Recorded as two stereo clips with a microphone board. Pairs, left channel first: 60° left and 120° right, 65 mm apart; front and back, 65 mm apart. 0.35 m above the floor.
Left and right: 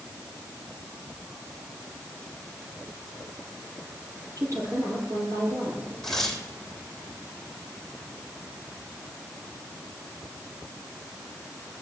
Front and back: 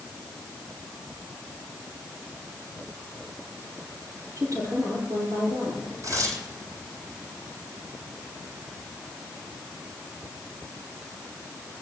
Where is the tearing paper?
145° left, 3 m.